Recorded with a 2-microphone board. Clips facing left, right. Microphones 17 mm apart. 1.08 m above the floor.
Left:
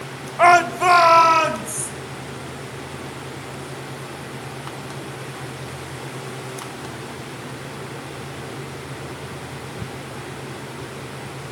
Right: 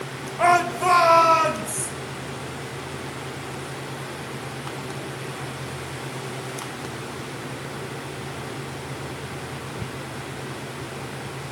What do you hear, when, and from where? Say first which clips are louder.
0.4 s a shout: left 5 dB; 30° left (ahead or behind), 0.6 m; by 1.9 s 35° left (ahead or behind), 2.5 m